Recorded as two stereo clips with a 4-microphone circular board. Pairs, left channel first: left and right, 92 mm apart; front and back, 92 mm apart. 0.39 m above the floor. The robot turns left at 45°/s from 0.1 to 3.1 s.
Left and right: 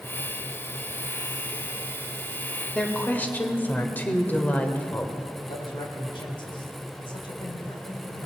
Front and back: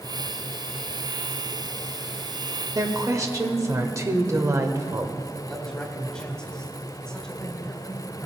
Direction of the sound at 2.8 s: 165° left.